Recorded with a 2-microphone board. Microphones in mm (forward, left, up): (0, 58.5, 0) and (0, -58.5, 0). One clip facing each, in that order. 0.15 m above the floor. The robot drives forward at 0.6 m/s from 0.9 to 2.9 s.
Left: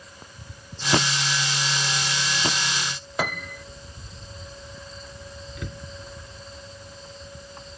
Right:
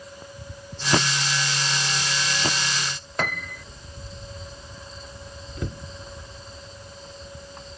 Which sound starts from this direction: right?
A cupboard door, at 5.6 s.